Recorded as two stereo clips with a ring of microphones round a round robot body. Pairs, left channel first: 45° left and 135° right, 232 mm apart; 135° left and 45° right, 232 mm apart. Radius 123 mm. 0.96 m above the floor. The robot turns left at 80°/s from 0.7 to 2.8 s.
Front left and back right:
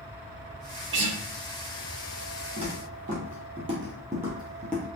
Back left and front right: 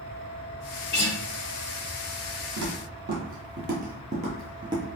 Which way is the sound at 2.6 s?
70° right.